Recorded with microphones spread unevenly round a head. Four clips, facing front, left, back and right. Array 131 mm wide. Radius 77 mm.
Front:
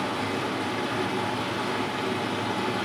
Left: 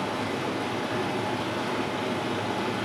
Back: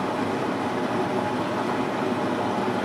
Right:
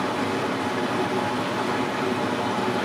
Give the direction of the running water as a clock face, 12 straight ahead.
5 o'clock.